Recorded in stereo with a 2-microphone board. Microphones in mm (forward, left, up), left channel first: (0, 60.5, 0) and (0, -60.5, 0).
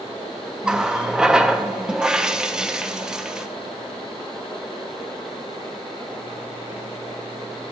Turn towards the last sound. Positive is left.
turn(degrees=-5)  # may be behind; listen again after turning